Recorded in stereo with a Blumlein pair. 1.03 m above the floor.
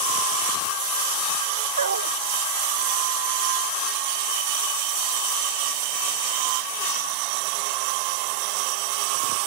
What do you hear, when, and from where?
1.8 s a dog barking: 70° right